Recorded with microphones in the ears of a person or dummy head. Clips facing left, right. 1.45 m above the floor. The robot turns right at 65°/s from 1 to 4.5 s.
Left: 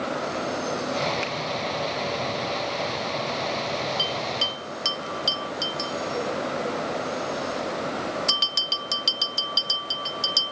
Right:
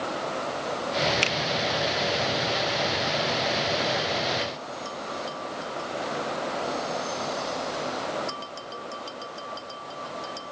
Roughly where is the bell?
Left.